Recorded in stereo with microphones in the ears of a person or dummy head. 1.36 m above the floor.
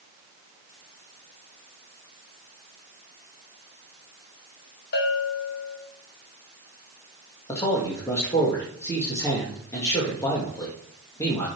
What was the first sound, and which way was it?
A bell, 60° left (ahead or behind).